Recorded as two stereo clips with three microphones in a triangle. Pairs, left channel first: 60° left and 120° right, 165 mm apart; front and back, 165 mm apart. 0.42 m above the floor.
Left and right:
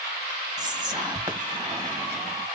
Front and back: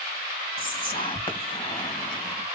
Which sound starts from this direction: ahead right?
Whispering, at 0.6 s.